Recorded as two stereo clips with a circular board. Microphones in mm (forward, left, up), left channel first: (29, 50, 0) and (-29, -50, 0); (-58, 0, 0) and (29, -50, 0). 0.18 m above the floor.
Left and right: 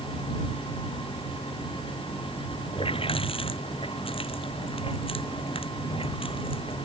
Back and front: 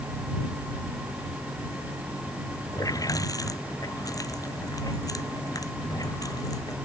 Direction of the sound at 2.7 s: 95° left.